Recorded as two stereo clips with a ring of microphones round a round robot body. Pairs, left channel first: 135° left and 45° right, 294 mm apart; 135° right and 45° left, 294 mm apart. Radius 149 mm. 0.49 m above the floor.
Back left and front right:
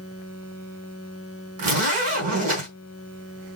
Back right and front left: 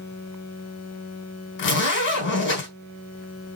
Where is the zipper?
85° right, 4 m.